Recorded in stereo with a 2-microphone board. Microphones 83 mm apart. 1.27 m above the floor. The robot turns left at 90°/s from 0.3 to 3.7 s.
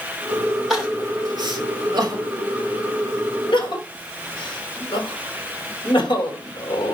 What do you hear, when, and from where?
0.7 s crying: 5° right (ahead or behind), 3 m; by 7.0 s 85° left, 3 m